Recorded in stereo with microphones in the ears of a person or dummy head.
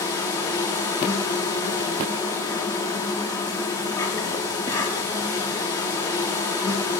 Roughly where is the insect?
Left.